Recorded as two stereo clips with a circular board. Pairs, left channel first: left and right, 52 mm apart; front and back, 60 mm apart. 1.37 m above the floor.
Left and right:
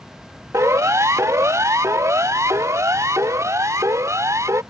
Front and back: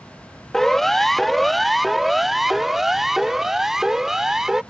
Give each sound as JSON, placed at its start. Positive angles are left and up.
{"t": 0.5, "sound": "a siren", "azimuth_deg": -85}